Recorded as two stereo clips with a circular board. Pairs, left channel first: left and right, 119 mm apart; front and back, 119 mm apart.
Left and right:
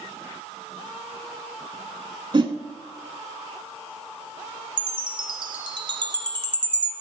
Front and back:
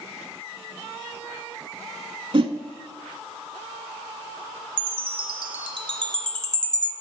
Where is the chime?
135° right, 0.8 m.